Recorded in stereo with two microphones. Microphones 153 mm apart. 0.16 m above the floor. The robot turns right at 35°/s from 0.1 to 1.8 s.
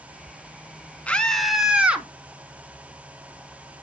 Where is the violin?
No violin in this recording.